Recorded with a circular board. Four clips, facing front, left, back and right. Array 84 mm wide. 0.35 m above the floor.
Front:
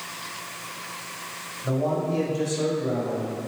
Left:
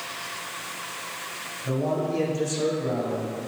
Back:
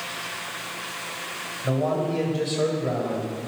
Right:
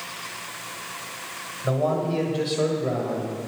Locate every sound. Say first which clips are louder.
1.6 s a man speaking: right 3 dB, back 1 dB; 95° right, 1.9 m; by 3.4 s 145° right, 1.5 m